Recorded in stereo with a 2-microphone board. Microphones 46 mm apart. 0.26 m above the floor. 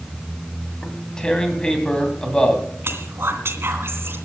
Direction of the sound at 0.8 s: 20° left (ahead or behind).